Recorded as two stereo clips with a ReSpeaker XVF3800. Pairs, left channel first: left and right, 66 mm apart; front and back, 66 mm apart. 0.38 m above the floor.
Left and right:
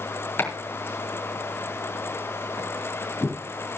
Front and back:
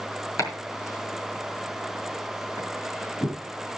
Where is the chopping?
35° left, 4.5 m.